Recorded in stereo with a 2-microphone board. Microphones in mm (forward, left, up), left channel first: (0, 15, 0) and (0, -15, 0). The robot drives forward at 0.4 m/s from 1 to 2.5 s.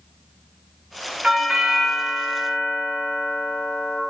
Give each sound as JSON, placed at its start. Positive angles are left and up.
{"t": 1.2, "sound": "a doorbell", "side_deg": -35, "distance_m": 1.8}